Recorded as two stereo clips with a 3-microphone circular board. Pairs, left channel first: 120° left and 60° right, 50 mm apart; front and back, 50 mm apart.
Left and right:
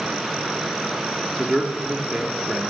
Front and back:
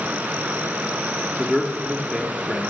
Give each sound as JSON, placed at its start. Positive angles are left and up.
{"t": 1.4, "sound": "a man speaking", "azimuth_deg": -85, "distance_m": 0.8}